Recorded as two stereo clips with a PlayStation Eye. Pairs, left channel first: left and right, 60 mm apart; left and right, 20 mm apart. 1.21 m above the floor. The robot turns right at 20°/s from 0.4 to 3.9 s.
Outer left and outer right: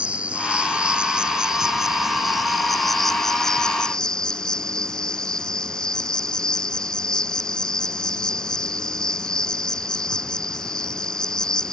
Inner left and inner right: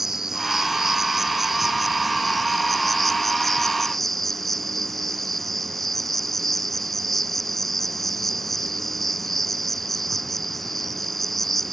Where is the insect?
20° right (ahead or behind); by 11.8 s 15° left (ahead or behind).